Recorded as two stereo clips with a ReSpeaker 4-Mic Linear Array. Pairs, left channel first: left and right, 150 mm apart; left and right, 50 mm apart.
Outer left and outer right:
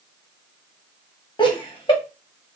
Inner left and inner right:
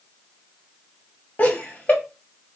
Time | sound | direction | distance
1.4 | laughter | 30° left (ahead or behind) | 1.2 m